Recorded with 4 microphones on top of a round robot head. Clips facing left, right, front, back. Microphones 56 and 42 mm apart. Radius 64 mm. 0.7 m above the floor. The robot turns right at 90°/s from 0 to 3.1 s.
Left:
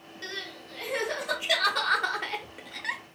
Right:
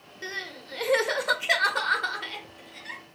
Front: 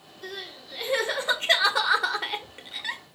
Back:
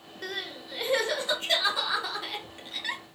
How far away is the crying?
About 1.1 m.